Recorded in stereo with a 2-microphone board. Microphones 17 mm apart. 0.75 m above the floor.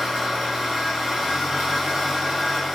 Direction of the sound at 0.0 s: 75° right (ahead or behind).